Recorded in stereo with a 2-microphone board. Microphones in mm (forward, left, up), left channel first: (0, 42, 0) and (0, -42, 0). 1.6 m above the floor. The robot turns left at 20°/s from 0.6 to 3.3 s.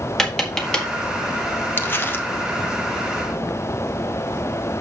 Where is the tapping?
5° left (ahead or behind), 1.6 m; by 0.8 s 10° left (ahead or behind), 1.6 m.